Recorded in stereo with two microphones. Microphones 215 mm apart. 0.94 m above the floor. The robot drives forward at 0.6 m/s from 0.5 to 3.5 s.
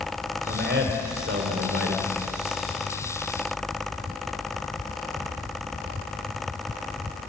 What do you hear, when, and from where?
0.5 s a man speaking: 55° right (ahead or behind), 4 m; by 2.1 s 65° right (ahead or behind), 3.5 m